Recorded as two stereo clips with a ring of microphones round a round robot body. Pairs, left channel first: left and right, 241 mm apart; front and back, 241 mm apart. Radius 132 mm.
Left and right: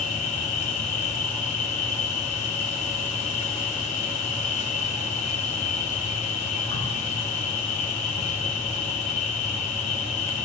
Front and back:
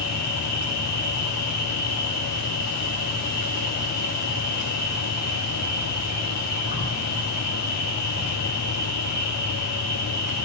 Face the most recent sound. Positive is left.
turn(degrees=55)